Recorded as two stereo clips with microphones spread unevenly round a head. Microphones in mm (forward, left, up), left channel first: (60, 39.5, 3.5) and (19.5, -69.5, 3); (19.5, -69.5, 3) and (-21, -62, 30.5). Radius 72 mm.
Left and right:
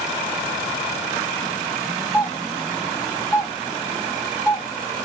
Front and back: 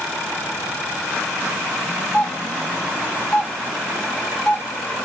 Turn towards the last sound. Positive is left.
turn(degrees=-35)